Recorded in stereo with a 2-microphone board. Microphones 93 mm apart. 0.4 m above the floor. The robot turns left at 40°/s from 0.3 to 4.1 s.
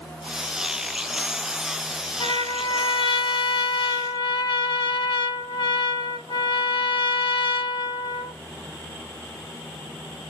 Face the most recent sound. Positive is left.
turn(degrees=65)